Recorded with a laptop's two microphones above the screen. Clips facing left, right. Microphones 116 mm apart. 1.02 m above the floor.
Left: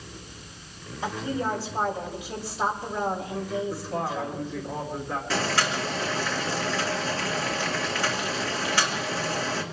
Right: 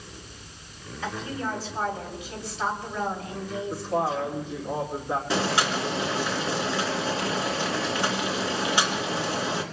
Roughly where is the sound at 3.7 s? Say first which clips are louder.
Right 3 dB; right.